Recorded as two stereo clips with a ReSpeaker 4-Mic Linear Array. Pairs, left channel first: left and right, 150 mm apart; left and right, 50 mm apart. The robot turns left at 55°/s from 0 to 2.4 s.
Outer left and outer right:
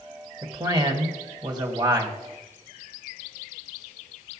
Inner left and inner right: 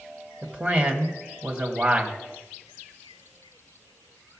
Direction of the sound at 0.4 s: 45° right.